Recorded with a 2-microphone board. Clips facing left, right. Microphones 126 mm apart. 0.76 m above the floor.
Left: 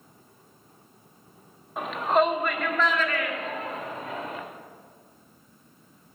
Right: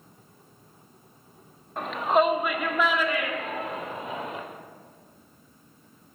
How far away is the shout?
About 1.2 m.